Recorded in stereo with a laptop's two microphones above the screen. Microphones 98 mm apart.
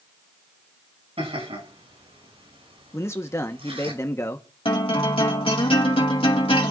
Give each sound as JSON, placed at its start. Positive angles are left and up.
{"t": 1.2, "sound": "laughter", "side_deg": -90, "distance_m": 8.0}
{"t": 2.9, "sound": "a man speaking", "side_deg": 30, "distance_m": 1.2}
{"t": 4.7, "sound": "a guitar", "side_deg": 65, "distance_m": 2.0}